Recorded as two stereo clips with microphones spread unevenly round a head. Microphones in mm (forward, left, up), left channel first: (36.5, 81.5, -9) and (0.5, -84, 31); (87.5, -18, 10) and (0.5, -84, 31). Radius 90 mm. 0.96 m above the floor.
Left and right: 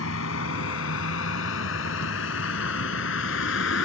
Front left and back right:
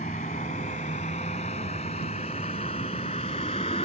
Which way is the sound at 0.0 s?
90° left.